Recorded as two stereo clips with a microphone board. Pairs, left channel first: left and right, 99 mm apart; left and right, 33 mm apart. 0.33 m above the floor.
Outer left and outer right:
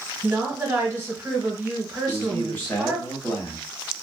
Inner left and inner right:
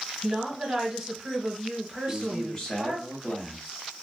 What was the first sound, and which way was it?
A woman speaking, 15° right (ahead or behind).